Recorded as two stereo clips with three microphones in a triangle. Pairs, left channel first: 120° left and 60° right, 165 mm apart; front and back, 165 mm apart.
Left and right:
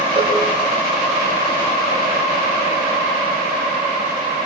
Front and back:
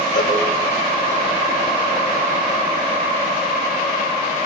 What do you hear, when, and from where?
0.1 s a cowbell: 5° right, 3.5 m